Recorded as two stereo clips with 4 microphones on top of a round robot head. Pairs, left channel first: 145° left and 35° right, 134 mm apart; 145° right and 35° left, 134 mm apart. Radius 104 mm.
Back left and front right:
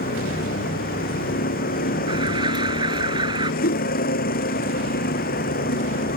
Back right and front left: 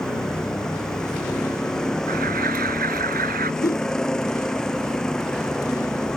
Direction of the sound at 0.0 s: 130° left.